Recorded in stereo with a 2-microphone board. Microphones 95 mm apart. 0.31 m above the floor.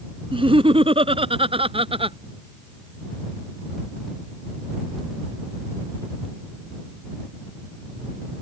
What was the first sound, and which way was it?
Laughter, 70° right (ahead or behind).